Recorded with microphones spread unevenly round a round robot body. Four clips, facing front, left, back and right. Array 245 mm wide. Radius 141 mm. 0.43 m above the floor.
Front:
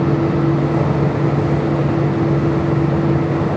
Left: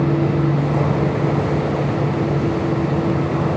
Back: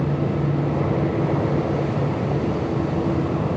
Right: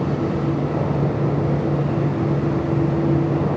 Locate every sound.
Only background noise.